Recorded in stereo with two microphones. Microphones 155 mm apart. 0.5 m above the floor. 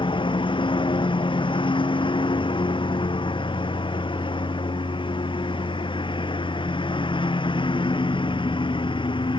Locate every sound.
0.0 s a lawn mower: 30° left (ahead or behind)